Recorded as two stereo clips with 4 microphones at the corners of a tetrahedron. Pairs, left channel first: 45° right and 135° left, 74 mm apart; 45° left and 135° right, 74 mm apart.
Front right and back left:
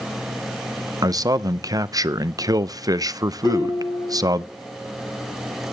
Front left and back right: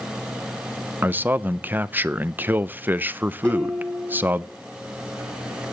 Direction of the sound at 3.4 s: 30° right.